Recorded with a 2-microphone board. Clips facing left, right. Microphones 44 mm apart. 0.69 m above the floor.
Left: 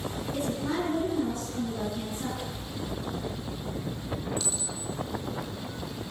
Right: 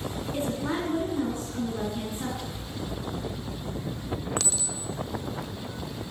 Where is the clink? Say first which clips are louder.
Right 2 dB; 85° right, 1.4 m.